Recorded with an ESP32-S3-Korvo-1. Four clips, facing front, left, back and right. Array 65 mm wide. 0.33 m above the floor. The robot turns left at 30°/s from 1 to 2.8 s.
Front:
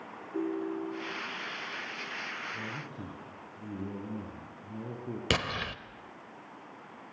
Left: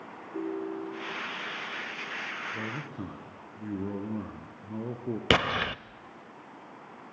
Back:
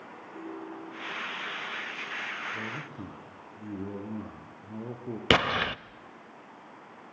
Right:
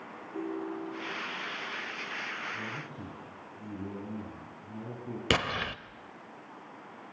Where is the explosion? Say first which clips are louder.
Left 4 dB, back 8 dB; 150° left, 0.6 m.